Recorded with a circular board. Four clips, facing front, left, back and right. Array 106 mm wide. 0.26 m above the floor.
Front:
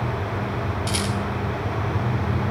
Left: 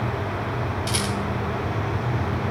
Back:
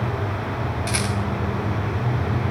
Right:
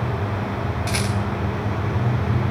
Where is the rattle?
130° right, 0.6 m.